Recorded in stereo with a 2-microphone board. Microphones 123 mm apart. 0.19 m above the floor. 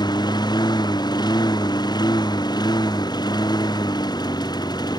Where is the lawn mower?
35° left (ahead or behind).